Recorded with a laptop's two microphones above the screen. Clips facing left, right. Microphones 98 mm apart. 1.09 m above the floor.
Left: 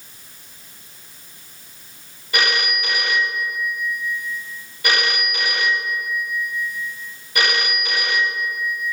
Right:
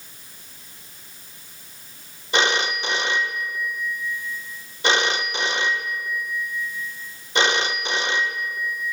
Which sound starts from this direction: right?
A phone ringing, at 2.3 s.